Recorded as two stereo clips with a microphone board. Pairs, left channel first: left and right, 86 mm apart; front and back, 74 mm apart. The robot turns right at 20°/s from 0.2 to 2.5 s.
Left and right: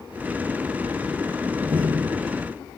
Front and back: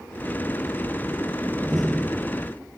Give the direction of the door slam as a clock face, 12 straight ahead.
3 o'clock.